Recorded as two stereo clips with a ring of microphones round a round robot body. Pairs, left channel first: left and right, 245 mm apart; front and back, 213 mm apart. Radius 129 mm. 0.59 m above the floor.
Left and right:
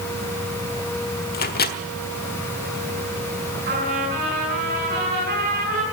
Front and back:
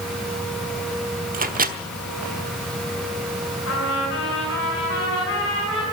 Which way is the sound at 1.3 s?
135° left.